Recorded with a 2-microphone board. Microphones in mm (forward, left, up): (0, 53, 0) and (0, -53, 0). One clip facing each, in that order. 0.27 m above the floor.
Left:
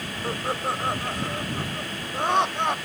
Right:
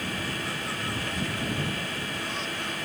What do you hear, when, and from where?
0.2 s laughter: 55° left (ahead or behind); by 2.8 s 70° left (ahead or behind)